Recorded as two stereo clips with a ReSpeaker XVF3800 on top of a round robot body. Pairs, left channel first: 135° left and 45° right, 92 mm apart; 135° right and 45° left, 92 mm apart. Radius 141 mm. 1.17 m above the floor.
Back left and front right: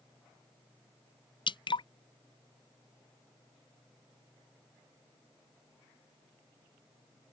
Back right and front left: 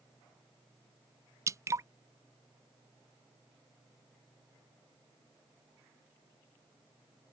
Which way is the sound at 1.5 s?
100° left.